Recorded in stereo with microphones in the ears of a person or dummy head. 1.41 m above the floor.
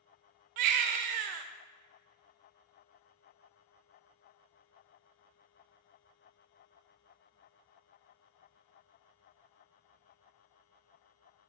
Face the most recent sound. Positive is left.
turn(degrees=-50)  # may be behind; listen again after turning